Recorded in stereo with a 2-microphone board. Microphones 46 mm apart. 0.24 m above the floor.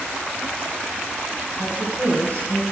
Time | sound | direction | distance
1.6 | a woman speaking | 25° left (ahead or behind) | 2.5 m